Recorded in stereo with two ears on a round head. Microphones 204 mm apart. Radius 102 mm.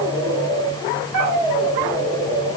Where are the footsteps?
No footsteps in this recording.